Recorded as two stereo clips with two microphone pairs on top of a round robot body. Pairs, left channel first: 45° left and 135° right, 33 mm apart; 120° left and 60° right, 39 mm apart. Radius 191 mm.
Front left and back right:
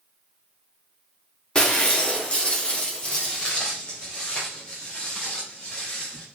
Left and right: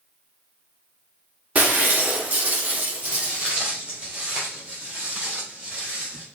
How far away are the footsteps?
About 2 m.